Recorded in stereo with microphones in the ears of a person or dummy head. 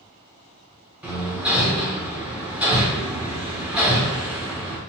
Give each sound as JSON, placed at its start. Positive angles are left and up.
{"t": 1.0, "sound": "hammering", "side_deg": -5, "distance_m": 1.0}